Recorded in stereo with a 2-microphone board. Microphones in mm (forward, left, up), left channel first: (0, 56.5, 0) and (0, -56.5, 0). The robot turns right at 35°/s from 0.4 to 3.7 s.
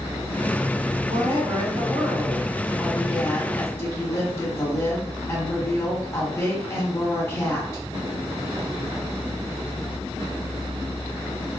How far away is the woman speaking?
About 1.6 m.